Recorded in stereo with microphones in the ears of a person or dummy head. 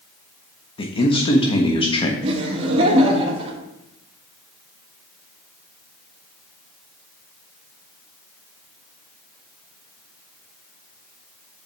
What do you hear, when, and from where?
0.8 s a man speaking: 25° left (ahead or behind), 1.1 m
2.2 s laughter: 30° right (ahead or behind), 1.8 m